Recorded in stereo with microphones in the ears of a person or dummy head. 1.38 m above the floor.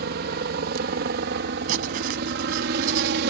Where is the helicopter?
55° right (ahead or behind); by 3.3 s 60° right (ahead or behind).